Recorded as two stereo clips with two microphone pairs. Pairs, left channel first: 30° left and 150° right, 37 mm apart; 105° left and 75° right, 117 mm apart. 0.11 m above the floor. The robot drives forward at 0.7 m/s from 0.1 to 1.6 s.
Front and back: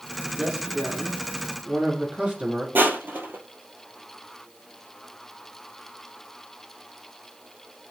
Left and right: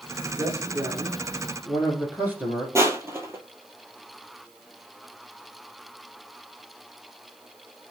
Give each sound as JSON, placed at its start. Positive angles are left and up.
{"t": 0.4, "sound": "a man speaking", "azimuth_deg": -65, "distance_m": 1.3}
{"t": 2.8, "sound": "crushing", "azimuth_deg": -135, "distance_m": 0.6}